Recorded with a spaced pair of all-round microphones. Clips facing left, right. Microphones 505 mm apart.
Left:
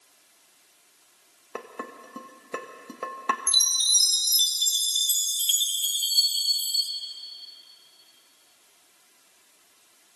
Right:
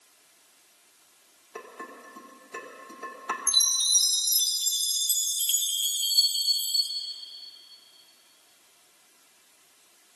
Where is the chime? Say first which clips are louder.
Left 1 dB; 40° left (ahead or behind), 0.7 m.